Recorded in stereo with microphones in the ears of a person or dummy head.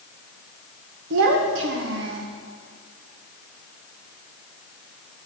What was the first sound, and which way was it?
A child speaking, 60° right (ahead or behind).